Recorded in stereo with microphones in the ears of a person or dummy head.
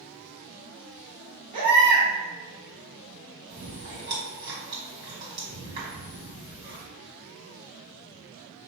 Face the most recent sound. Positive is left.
turn(degrees=-45)  # may be behind; listen again after turning